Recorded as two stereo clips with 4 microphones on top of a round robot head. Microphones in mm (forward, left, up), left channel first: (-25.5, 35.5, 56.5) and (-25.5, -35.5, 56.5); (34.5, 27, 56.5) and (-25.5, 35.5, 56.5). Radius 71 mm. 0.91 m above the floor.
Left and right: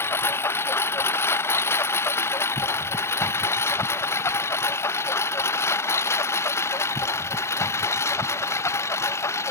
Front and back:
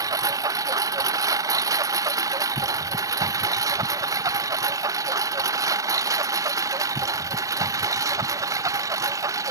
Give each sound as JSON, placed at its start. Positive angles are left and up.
{"t": 0.0, "sound": "a lawn mower", "azimuth_deg": 145}